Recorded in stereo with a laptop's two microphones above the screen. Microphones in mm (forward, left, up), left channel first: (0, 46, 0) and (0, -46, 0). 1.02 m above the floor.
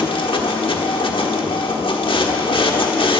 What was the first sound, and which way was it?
A machine running, 65° left (ahead or behind).